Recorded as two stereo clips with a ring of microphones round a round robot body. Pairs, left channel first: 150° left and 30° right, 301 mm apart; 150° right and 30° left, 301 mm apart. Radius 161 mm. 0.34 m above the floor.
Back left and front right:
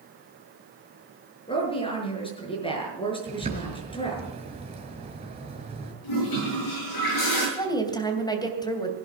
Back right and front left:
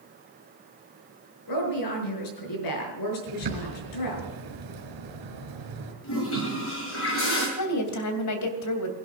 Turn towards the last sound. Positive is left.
turn(degrees=-135)